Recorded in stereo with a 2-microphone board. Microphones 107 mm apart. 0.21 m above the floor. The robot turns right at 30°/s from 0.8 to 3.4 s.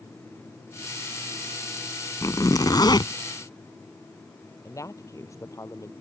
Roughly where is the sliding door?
I don't hear a sliding door.